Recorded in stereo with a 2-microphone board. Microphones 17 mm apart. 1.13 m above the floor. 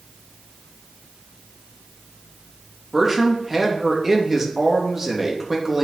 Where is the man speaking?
15° right (ahead or behind), 1.8 m.